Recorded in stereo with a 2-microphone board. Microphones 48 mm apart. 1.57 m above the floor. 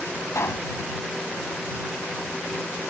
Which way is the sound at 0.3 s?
75° left (ahead or behind).